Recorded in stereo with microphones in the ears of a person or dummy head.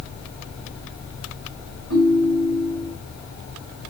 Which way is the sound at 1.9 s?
80° right.